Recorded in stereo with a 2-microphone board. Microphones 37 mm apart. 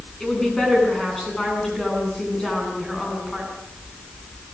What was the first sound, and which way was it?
A woman speaking, 10° left (ahead or behind).